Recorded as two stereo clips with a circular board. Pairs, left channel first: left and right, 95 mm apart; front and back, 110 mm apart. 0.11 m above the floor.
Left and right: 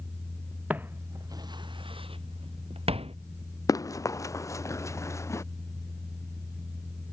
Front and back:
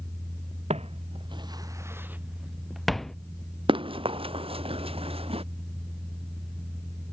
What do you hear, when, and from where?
0.7 s footsteps: 165° right; by 3.2 s 85° right
3.7 s running footsteps: 140° left; by 5.4 s 150° left